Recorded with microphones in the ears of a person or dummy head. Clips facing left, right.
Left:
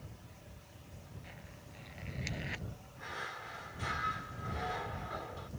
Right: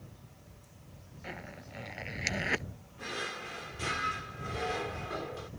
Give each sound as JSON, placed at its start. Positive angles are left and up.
{"t": 1.2, "sound": "a zipper", "side_deg": -70}
{"t": 3.0, "sound": "a drawer", "side_deg": -35}